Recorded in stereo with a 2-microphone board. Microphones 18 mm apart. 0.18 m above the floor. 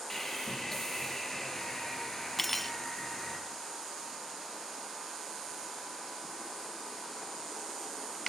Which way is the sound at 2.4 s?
5° left (ahead or behind).